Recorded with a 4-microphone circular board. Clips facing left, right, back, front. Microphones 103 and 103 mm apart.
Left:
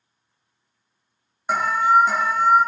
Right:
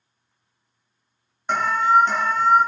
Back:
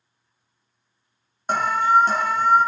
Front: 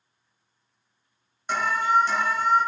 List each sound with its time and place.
1.5 s an alarm: 170° left, 0.9 m